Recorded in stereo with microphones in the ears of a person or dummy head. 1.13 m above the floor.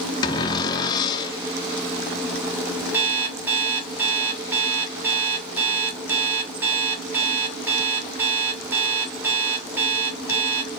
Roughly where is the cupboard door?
Left.